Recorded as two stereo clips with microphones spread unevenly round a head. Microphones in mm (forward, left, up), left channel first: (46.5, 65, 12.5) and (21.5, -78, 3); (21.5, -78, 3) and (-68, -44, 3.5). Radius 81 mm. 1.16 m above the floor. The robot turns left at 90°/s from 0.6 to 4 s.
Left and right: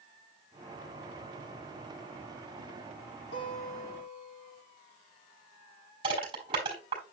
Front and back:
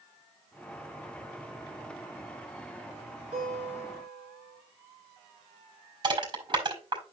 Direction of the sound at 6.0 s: 165° right.